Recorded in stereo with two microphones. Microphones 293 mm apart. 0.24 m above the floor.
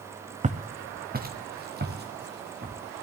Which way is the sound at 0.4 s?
25° right (ahead or behind).